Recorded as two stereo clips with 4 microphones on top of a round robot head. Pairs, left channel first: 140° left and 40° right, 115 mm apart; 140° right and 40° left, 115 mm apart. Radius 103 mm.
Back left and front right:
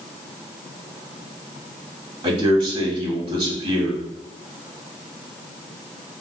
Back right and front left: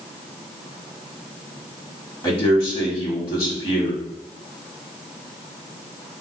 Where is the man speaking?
90° right, 1.1 m.